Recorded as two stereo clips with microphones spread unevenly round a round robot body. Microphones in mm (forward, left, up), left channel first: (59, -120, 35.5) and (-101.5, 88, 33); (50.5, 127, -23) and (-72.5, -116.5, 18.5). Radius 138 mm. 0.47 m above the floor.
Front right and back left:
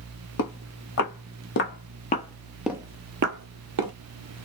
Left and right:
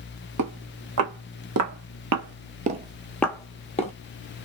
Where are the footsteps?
85° right, 1.5 m; by 3.9 s 130° left, 0.8 m.